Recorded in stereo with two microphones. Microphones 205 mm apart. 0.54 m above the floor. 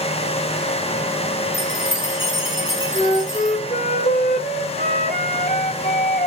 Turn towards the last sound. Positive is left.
turn(degrees=45)  # may be behind; listen again after turning